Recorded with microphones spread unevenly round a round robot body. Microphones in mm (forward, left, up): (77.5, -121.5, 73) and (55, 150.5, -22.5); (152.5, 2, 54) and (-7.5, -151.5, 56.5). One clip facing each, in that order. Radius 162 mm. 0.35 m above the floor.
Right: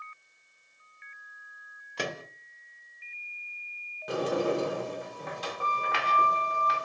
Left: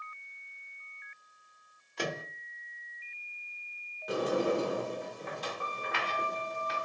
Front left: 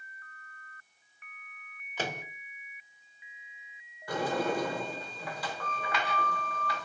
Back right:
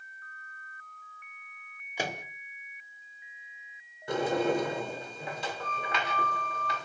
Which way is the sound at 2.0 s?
60° right.